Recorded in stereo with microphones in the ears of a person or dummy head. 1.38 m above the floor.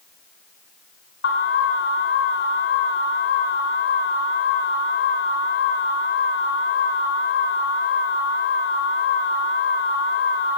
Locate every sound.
1.2 s an alarm: 75° left (ahead or behind), 4 m